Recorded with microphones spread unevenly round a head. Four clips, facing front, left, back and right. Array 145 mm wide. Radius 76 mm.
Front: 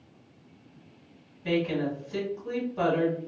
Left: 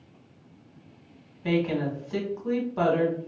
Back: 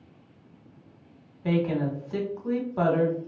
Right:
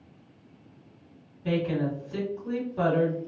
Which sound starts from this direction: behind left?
A woman speaking, at 1.4 s.